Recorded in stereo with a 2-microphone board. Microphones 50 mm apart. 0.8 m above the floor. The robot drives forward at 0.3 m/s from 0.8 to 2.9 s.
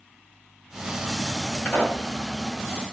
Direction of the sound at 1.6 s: 40° left (ahead or behind).